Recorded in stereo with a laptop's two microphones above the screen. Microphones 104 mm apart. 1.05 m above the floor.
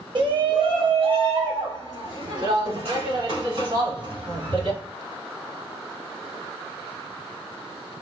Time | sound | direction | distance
0.1 | a shout | 50° right (ahead or behind) | 0.9 m